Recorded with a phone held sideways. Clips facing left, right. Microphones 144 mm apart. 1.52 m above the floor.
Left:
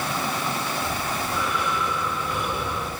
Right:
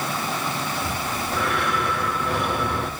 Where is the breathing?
70° right (ahead or behind), 5 m.